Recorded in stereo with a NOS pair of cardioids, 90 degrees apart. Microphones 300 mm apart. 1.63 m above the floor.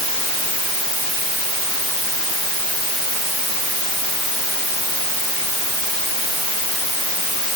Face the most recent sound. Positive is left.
No sound to turn to.